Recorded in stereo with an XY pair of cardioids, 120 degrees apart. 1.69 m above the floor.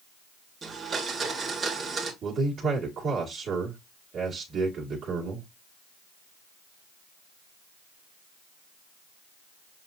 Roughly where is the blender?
Ahead right.